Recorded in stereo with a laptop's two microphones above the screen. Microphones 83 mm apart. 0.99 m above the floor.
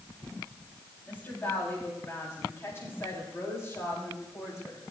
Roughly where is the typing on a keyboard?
No typing on a keyboard in this recording.